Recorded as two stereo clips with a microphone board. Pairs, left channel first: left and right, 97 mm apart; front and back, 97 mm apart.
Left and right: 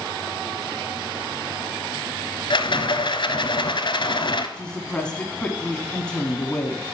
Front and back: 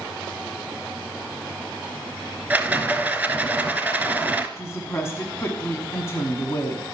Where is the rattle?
105° left, 0.8 m.